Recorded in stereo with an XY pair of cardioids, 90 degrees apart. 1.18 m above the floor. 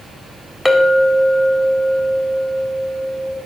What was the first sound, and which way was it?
A clink, 15° left.